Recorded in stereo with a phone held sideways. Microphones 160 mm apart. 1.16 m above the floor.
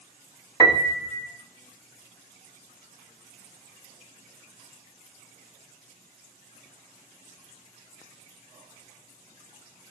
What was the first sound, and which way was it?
A piano, 25° left (ahead or behind).